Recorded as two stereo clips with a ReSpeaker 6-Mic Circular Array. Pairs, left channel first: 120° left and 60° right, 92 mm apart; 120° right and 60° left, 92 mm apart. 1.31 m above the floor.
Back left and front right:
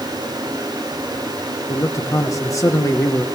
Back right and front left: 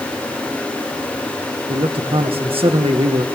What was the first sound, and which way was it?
A man speaking, 65° left.